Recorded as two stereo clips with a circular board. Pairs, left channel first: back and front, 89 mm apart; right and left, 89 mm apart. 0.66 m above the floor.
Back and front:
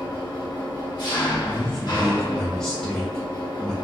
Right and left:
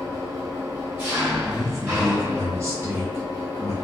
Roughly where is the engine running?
Behind left.